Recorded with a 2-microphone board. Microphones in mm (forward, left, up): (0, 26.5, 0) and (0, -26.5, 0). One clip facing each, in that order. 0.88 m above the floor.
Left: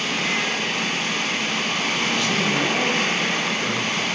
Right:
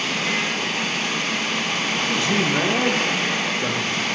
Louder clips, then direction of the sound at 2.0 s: Right 2 dB; 25° right (ahead or behind).